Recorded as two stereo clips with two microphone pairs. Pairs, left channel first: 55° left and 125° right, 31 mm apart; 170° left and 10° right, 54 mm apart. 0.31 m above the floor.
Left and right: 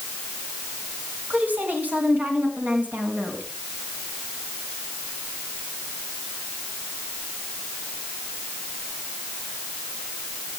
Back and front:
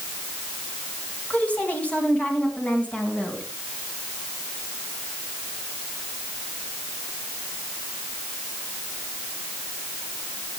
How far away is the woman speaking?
About 3 m.